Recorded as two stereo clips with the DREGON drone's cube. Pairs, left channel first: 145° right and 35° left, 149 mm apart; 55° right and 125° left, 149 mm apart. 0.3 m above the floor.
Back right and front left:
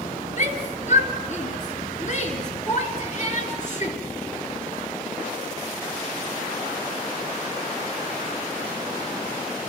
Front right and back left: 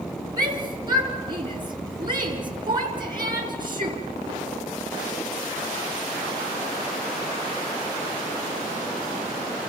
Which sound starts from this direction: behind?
A shout, at 0.4 s.